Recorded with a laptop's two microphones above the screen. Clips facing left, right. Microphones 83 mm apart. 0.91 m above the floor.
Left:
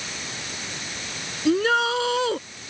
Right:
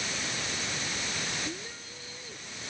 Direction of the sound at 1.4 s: 80° left.